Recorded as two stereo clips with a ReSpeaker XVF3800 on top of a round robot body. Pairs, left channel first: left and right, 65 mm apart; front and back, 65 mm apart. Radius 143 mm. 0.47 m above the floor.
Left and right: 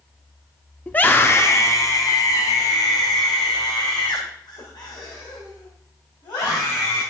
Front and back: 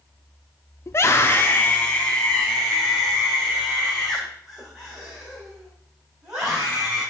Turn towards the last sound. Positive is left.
turn(degrees=100)